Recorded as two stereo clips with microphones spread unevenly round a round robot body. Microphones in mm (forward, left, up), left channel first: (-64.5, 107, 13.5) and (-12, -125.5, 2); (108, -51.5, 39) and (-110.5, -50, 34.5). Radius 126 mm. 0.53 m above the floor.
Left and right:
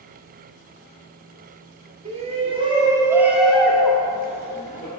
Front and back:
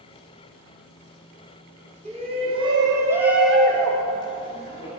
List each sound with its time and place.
2.0 s a shout: 130° right, 1.7 m; by 4.9 s 50° left, 1.6 m